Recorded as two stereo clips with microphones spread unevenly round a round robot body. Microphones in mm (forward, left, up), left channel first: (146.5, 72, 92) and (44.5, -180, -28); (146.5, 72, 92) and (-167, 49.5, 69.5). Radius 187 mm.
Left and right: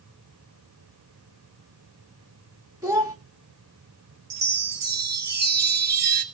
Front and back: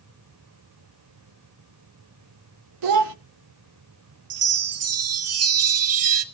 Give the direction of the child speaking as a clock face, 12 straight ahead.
7 o'clock.